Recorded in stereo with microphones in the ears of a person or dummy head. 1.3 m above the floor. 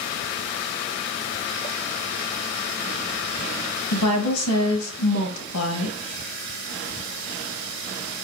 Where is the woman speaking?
80° left, 1.3 m.